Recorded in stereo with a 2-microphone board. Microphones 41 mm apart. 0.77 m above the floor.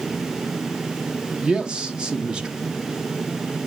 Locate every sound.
1.4 s a man speaking: 20° right (ahead or behind), 1.2 m